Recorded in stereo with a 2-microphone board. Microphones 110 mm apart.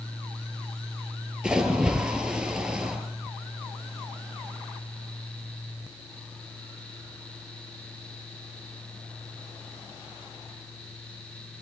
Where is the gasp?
I don't hear a gasp.